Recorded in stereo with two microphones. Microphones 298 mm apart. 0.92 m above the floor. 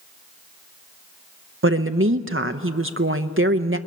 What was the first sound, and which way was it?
A woman speaking, 45° right (ahead or behind).